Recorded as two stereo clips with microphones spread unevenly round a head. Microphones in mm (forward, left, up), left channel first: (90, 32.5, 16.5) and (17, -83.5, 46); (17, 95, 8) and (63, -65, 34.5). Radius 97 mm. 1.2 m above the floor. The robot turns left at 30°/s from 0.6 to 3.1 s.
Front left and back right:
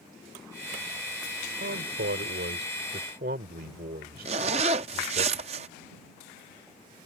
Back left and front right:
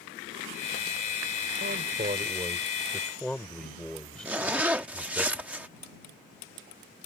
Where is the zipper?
150° right.